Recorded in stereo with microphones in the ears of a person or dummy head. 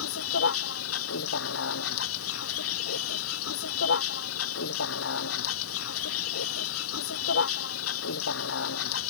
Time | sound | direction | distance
0.0 | a vehicle | 80° left | ?